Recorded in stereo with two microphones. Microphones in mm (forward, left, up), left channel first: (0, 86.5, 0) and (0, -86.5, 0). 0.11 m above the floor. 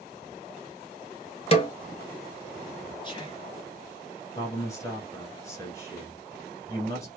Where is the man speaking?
15° left (ahead or behind), 1.3 m.